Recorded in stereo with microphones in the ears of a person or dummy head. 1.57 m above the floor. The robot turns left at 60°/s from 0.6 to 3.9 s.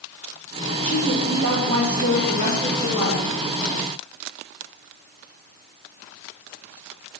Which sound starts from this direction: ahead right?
A woman speaking, at 0.8 s.